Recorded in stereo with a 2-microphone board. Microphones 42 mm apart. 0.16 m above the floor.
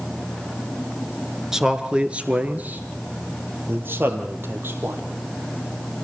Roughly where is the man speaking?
Centre.